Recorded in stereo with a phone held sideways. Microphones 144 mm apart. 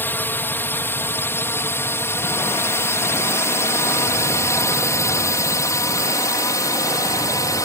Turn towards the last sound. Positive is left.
turn(degrees=20)  # may be behind; listen again after turning